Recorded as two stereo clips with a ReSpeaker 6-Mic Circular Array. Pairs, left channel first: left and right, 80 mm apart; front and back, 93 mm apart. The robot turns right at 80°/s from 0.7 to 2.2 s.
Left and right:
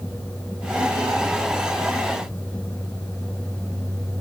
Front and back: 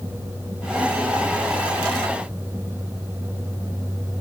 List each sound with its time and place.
Only background noise.